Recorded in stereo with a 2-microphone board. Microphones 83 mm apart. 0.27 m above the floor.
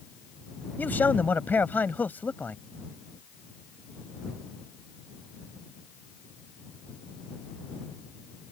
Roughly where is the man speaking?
Left.